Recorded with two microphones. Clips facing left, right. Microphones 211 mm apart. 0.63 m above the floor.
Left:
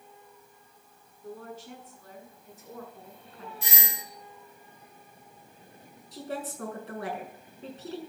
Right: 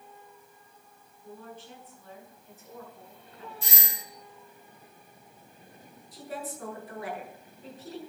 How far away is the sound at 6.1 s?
About 6 m.